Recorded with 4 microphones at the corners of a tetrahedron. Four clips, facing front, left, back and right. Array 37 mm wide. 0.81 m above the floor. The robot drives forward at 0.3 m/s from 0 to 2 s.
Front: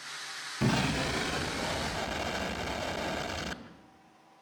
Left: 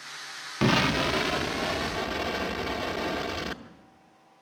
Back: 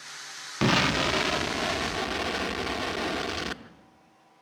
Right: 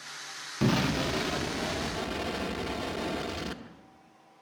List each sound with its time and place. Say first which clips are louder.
0.6 s an explosion: left 4 dB, back 6 dB; 145° left, 0.5 m; by 3.6 s 160° left, 0.9 m